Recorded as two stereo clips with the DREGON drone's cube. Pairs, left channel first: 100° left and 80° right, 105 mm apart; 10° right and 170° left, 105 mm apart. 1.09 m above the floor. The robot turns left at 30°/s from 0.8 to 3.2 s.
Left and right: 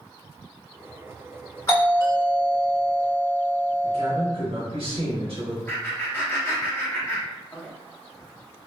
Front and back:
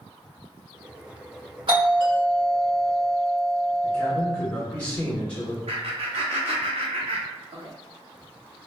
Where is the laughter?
165° left, 0.6 m.